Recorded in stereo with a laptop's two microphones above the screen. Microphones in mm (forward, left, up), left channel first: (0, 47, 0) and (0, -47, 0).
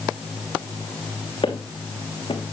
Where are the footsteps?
70° left (ahead or behind), 3 m.